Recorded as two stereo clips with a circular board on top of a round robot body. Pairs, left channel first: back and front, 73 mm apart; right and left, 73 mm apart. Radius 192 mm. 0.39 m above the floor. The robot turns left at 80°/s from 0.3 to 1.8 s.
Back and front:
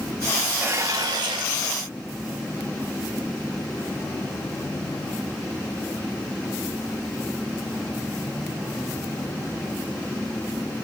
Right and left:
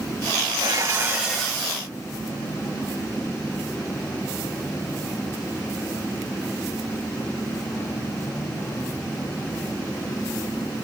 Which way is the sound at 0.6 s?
65° left.